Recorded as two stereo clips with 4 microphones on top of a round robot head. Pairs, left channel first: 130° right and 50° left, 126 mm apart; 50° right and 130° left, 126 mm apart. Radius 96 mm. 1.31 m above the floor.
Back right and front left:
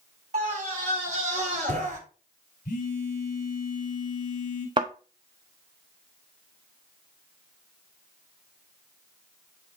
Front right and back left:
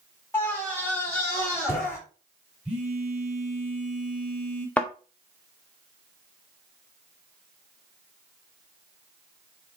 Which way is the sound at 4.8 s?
20° left.